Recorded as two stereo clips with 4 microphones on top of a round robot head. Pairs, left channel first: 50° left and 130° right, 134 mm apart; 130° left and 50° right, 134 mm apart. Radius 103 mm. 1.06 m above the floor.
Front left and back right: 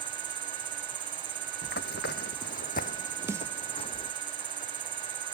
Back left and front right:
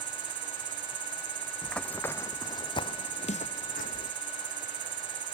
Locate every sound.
0.0 s an insect: 75° right
1.6 s running footsteps: 45° left; by 4.1 s 105° left
3.3 s a snare drum: 160° left